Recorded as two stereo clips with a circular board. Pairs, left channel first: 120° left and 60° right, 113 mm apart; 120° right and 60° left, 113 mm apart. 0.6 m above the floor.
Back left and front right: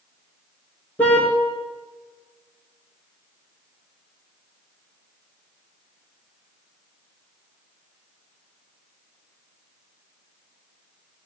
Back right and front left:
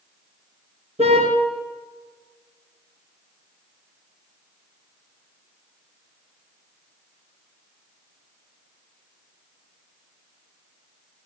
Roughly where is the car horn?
Ahead left.